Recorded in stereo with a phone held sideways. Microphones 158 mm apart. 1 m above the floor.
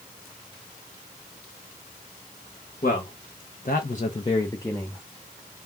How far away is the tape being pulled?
I don't hear tape being pulled.